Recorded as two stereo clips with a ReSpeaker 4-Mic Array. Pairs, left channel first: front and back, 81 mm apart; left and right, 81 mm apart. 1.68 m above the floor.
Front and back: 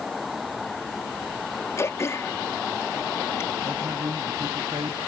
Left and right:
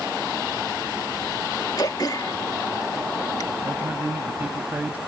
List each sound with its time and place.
1.8 s throat clearing: 55° left
3.6 s a man speaking: 160° right